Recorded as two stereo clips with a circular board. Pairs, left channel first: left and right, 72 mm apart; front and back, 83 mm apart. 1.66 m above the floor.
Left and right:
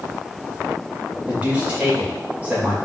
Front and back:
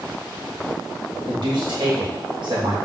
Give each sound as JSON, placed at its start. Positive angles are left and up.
{"t": 1.3, "sound": "a man speaking", "azimuth_deg": -160, "distance_m": 2.5}